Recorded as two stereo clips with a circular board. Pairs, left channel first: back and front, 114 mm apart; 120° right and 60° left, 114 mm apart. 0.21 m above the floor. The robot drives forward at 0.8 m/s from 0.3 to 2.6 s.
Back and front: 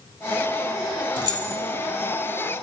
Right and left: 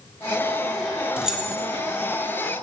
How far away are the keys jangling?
About 0.9 m.